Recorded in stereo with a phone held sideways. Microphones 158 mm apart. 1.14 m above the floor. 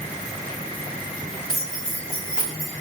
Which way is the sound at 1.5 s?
Centre (ahead or behind).